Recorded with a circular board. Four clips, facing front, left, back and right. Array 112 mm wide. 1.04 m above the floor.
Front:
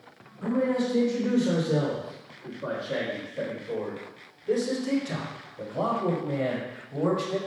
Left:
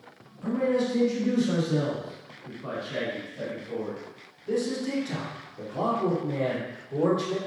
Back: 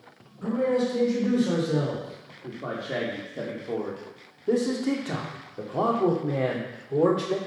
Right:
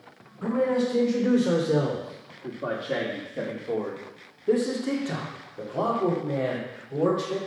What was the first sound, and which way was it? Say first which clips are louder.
A man speaking: right 1 dB, back 1 dB; 90° right.